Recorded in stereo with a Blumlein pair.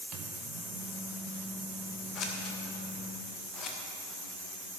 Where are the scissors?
30° left, 1.6 m.